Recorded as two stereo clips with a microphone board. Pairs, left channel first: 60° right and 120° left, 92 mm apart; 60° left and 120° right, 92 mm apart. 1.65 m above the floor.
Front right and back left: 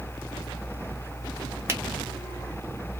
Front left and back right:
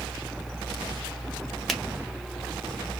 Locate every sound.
1.7 s a finger snap: 145° left, 0.7 m